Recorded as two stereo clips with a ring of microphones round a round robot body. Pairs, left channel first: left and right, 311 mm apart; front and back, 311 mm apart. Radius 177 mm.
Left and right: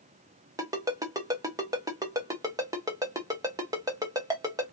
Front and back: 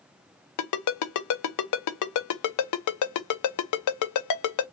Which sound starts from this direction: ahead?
A ringtone, at 0.6 s.